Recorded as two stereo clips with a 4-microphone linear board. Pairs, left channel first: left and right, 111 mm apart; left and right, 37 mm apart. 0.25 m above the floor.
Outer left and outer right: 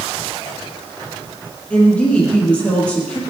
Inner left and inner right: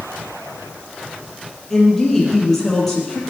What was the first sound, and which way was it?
A woman speaking, 10° left (ahead or behind).